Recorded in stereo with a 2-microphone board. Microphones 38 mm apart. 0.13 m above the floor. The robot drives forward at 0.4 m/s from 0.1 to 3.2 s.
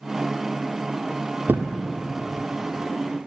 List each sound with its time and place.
1.5 s a thud: 60° right (ahead or behind), 1.4 m; by 1.7 s 55° right (ahead or behind), 1.5 m